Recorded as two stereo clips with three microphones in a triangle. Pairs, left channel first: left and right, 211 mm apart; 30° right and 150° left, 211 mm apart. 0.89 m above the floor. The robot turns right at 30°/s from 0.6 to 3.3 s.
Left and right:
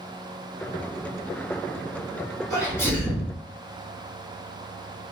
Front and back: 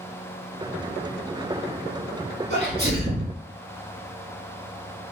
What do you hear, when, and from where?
2.5 s a sneeze: 155° left, 1.3 m; by 3.3 s straight behind, 1.3 m